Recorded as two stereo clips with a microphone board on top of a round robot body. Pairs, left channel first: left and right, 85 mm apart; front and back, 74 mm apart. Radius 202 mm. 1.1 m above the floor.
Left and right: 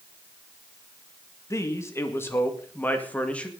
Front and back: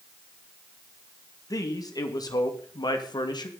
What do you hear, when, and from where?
1.5 s a man speaking: 35° left, 2.5 m; by 3.5 s 15° left, 2.5 m